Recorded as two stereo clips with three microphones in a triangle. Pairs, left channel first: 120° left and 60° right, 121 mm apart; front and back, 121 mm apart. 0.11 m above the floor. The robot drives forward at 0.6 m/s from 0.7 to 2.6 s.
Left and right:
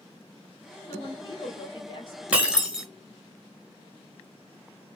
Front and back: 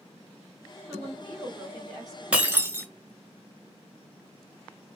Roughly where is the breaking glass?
Behind right.